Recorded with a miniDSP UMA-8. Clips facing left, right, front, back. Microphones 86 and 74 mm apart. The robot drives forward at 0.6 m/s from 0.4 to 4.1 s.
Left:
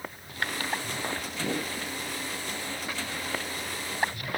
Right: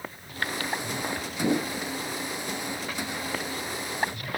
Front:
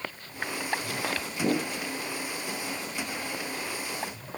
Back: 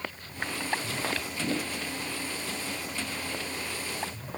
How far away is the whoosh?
About 2 m.